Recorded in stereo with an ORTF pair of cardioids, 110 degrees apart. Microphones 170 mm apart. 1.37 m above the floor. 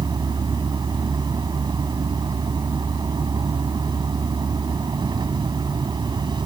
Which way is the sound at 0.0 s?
25° right.